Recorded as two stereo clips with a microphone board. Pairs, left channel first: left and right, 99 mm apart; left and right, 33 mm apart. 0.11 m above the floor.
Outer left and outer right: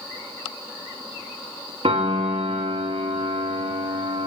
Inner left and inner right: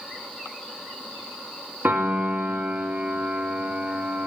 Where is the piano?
75° right (ahead or behind), 3 m.